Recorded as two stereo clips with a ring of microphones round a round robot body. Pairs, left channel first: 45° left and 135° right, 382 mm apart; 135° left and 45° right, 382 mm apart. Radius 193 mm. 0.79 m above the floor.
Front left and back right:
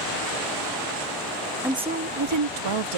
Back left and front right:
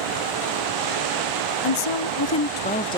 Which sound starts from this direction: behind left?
A woman speaking, at 1.6 s.